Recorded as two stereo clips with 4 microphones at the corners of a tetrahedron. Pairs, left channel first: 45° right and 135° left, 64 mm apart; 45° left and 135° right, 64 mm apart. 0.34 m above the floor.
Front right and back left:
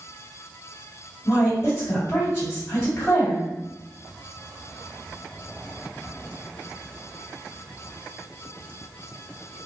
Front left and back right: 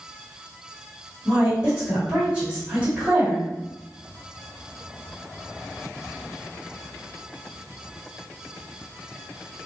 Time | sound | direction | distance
1.2 | a woman speaking | 70° right | 1.7 m